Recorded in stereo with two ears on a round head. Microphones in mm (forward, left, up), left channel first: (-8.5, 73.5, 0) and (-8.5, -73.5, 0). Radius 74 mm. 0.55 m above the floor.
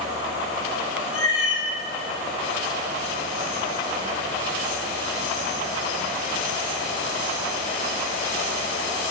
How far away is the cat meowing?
About 2.5 m.